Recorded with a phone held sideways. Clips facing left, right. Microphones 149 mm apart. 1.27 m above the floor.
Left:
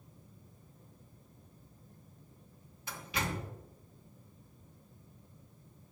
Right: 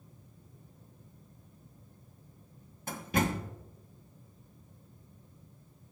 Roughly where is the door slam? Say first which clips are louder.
Right 7 dB; right.